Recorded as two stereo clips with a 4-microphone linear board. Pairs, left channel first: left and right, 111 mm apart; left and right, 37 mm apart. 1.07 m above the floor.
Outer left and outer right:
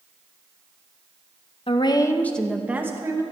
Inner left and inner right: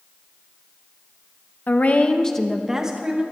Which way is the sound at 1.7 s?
50° left (ahead or behind).